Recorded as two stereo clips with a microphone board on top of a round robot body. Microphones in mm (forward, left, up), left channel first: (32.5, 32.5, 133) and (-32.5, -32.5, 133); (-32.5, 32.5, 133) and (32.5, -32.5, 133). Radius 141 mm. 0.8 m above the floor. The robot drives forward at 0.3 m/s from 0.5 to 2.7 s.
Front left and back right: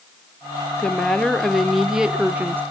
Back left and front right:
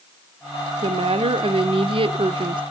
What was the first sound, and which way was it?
A woman speaking, 35° right.